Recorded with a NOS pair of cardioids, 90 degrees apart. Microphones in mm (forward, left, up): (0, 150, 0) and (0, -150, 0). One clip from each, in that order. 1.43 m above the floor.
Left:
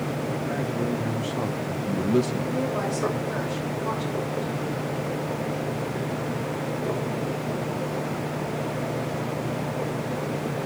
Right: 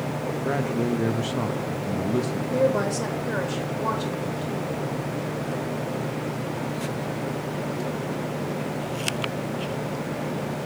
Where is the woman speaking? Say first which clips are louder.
Right 8 dB; 60° right, 2.5 m.